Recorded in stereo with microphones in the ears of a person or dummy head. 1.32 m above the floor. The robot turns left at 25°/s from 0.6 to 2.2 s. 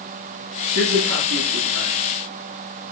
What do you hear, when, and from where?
0.8 s a man speaking: 65° right (ahead or behind), 3 m; by 2.0 s 80° right, 3 m